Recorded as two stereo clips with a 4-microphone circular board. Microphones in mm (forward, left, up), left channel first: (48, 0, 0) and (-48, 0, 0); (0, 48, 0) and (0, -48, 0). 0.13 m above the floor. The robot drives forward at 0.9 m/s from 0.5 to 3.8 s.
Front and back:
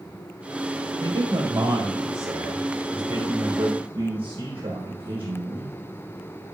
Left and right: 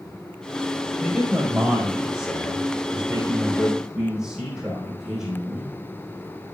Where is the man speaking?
170° right, 3 m; by 5.8 s 175° right, 5 m.